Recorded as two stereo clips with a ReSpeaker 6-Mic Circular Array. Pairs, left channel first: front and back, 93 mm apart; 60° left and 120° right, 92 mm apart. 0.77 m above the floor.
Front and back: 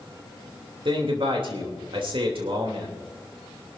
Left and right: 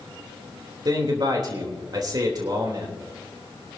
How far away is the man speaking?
About 3 m.